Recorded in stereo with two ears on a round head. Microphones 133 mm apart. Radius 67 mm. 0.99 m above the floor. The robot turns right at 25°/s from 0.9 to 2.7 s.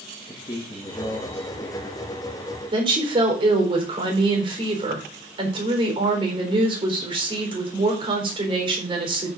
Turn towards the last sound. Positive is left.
turn(degrees=-35)  # may be behind; listen again after turning